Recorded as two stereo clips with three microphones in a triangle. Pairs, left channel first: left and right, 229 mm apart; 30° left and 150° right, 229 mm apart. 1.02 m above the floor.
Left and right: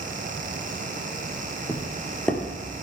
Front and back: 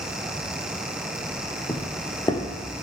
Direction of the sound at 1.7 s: 25° left.